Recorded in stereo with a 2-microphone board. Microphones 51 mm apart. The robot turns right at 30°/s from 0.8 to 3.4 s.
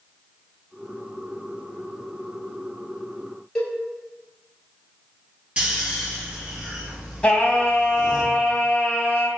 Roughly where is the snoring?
Right.